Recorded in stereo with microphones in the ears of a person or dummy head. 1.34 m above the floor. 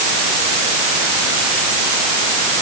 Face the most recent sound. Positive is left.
No sound to turn to.